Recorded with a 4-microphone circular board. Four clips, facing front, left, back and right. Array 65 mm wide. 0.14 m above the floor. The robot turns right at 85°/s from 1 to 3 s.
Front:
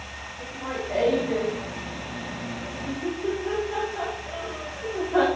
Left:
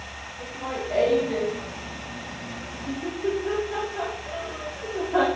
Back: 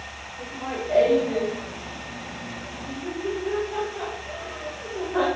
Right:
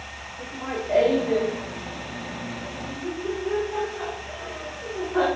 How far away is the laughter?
About 6 m.